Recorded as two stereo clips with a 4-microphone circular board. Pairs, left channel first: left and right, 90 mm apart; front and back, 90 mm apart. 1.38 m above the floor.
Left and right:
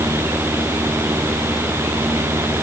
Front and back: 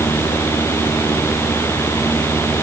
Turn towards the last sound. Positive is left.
No sound to turn to.